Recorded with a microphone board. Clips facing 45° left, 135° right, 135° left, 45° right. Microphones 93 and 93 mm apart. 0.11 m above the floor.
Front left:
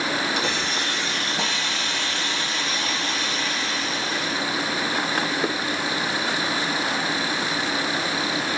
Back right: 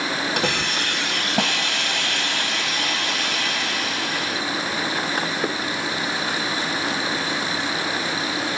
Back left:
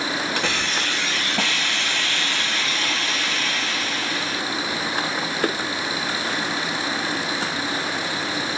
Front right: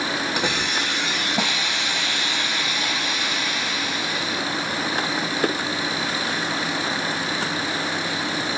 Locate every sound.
0.4 s a hiss: 115° right, 0.8 m